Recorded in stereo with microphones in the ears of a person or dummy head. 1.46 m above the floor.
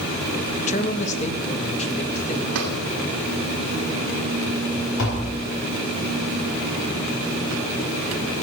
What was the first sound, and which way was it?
A man speaking, 40° left (ahead or behind).